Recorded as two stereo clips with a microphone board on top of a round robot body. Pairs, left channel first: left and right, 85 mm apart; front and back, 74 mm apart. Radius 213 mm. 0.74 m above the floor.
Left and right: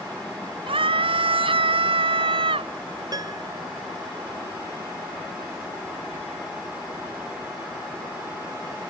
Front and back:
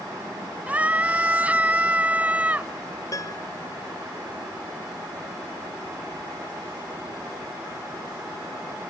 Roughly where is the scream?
Right.